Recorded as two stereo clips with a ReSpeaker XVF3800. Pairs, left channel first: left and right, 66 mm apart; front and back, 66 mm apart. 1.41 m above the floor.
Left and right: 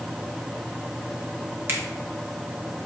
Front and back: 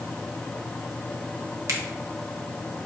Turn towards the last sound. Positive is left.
turn(degrees=-145)